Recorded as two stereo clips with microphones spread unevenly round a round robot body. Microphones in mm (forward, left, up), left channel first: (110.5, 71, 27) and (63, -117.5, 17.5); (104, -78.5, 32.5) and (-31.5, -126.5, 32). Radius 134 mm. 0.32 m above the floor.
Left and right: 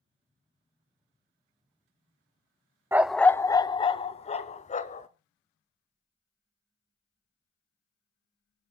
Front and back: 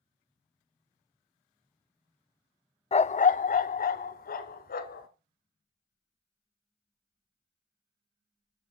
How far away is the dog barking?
About 0.5 m.